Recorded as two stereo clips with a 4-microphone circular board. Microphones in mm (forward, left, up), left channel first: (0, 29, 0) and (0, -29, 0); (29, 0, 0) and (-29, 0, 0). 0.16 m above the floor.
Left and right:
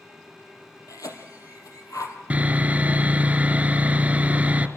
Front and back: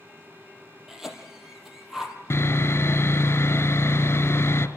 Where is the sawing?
30° right, 1.4 m.